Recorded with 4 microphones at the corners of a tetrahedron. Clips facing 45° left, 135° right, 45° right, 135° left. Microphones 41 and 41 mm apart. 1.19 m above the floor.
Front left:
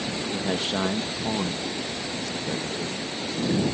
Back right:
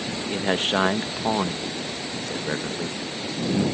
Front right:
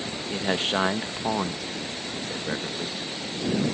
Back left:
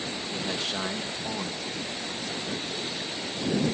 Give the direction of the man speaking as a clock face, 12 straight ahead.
3 o'clock.